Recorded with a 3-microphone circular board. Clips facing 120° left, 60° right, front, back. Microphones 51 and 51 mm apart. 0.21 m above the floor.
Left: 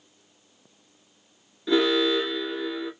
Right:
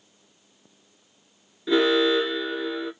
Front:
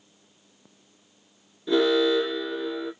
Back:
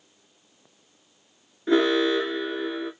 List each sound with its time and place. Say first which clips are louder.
1.7 s an alarm: right 2 dB, even; 140° right, 2.5 m